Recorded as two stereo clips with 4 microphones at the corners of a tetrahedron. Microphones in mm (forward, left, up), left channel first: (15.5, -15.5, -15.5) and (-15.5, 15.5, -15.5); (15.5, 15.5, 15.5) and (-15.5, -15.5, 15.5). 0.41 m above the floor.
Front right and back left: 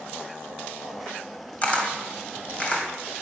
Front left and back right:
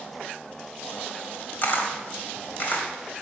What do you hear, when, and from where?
1.6 s a camera shutter: 15° left, 2.5 m